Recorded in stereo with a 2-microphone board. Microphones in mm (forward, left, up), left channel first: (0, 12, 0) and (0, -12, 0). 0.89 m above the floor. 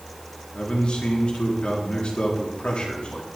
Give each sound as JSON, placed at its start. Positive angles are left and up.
{"t": 0.5, "sound": "a man speaking", "side_deg": 45, "distance_m": 1.8}